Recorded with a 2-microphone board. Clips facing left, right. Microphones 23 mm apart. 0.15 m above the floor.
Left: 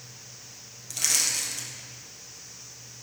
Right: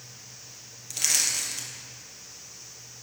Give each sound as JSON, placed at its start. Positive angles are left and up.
{"t": 0.9, "sound": "crushing", "side_deg": -10, "distance_m": 2.0}